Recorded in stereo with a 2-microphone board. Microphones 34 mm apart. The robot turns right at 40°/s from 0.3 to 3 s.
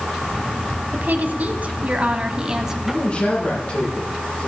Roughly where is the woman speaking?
Right.